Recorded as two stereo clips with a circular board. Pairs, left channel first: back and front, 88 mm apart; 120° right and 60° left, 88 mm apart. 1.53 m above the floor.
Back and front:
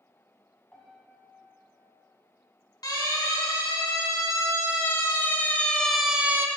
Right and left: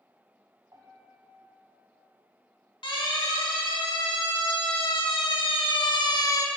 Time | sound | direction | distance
0.7 | a piano | 100° left | 3 m
2.8 | a siren | 140° right | 4.5 m